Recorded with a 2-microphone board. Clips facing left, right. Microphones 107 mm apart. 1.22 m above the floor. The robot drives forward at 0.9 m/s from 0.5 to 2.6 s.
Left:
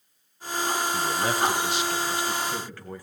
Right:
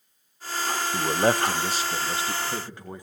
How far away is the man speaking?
About 0.7 m.